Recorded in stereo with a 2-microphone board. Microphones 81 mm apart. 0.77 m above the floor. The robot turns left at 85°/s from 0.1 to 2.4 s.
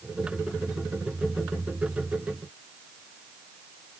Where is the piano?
I don't hear a piano.